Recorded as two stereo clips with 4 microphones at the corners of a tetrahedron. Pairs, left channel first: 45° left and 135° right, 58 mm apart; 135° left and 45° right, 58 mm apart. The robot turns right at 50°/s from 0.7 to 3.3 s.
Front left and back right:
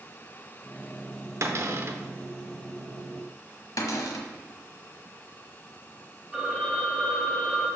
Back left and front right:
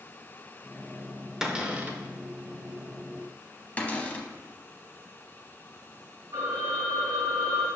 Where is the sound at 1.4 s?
125° right, 0.8 m; by 2.0 s 95° right, 0.8 m.